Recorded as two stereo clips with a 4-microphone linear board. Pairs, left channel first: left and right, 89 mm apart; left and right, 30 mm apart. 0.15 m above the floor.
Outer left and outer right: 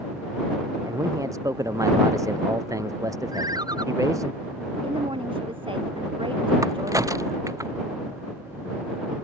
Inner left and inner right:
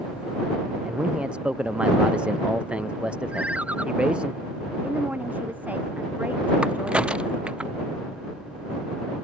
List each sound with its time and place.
0.8 s a man speaking: 40° right (ahead or behind)
3.3 s a ringtone: 50° right (ahead or behind)
4.8 s a woman speaking: 80° right
6.6 s a crack: 40° right (ahead or behind)